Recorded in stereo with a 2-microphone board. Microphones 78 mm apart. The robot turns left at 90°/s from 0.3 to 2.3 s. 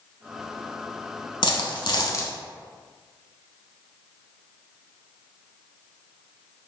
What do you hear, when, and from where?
1.4 s a dropped coin: 110° left, 0.6 m; by 2.3 s 30° left, 0.6 m